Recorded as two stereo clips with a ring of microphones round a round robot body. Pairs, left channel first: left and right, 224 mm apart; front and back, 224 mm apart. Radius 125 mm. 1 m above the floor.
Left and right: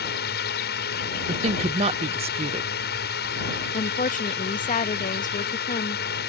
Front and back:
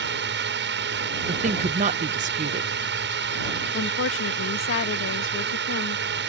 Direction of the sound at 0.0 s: 140° left.